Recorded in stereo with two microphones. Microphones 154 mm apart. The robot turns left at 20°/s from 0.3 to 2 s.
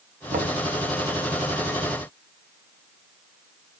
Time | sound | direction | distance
0.3 | knocking | 65° right (ahead or behind) | 1.3 m